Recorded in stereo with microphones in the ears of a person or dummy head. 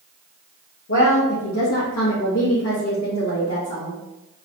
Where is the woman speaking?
60° left (ahead or behind), 1.0 m; by 4.0 s 45° left (ahead or behind), 1.8 m.